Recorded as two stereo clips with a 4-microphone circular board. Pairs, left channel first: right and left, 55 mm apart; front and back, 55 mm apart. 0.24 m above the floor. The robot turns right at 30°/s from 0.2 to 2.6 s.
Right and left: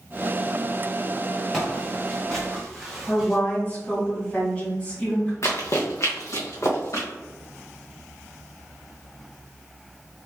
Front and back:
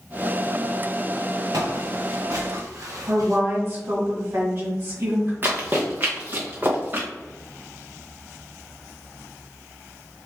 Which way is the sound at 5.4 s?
125° right.